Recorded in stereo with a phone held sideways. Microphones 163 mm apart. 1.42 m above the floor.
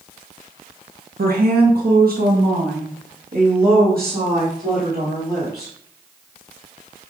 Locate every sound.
1.2 s a woman speaking: 70° right (ahead or behind), 1.0 m; by 5.7 s 75° right (ahead or behind), 3.5 m